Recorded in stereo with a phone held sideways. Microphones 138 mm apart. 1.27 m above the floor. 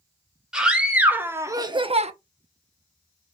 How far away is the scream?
About 1.6 m.